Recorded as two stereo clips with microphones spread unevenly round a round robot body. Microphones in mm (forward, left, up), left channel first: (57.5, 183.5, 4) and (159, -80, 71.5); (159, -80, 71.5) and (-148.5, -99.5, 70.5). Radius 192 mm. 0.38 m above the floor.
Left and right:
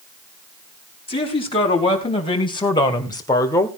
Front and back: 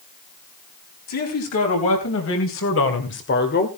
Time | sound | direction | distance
1.1 | a man speaking | 45° left | 4 m